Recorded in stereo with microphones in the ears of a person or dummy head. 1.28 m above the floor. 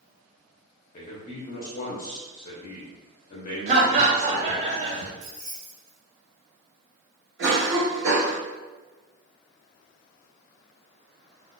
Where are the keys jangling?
45° right (ahead or behind), 0.7 m.